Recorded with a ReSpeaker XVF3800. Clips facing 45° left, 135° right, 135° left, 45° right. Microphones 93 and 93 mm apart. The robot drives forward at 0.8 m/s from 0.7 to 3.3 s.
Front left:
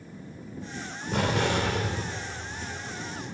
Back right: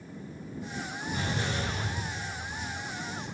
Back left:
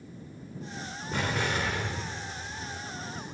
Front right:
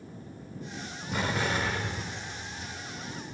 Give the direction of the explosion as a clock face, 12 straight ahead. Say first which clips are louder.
Front left 8 dB, front right 1 dB; 11 o'clock.